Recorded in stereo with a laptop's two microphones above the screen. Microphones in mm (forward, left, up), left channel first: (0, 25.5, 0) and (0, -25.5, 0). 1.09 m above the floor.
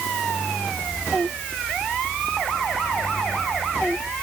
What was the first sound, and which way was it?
Only background noise.